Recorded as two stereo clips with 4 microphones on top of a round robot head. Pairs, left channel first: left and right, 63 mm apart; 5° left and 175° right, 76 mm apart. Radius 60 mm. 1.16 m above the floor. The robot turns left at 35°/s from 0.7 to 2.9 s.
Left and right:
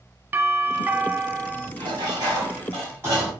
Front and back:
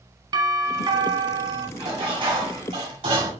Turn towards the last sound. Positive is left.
turn(degrees=-155)